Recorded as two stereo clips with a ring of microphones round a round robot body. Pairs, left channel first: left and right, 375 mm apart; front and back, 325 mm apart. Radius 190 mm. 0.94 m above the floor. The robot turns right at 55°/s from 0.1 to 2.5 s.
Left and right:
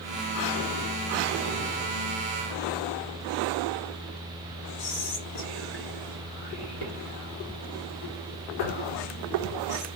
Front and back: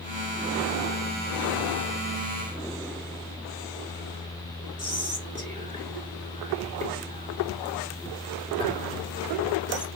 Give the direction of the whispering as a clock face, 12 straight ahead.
9 o'clock.